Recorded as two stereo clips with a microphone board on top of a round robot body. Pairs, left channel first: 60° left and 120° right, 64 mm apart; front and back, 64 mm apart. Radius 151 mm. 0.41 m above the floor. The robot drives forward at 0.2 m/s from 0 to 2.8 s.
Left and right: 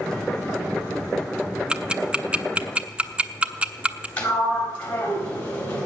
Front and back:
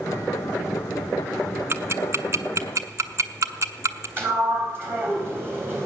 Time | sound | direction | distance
1.7 | ticking | 170° left | 0.9 m
4.2 | a sliding door | 125° left | 3.5 m